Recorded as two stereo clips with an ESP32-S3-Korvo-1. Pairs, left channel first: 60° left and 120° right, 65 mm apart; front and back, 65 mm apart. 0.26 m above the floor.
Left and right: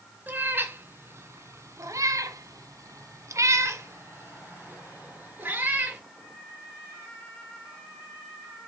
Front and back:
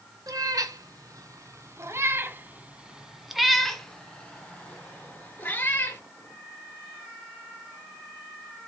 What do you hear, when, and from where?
0.3 s a cat meowing: straight behind, 1.9 m; by 6.0 s 60° right, 3 m